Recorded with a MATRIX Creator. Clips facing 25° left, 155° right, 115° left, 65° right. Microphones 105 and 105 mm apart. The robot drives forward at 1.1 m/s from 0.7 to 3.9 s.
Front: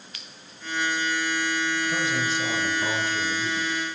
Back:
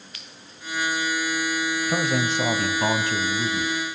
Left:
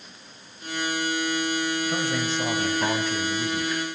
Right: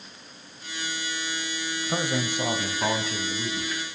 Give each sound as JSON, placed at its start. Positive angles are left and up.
{"t": 1.9, "sound": "a man speaking", "azimuth_deg": -130, "distance_m": 1.4}